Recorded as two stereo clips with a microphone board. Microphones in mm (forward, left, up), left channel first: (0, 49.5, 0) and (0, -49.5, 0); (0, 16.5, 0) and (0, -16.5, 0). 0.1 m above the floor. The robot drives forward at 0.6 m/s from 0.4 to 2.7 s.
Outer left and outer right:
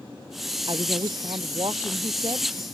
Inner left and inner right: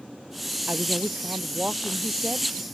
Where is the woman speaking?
55° right (ahead or behind); by 2.5 s 45° right (ahead or behind).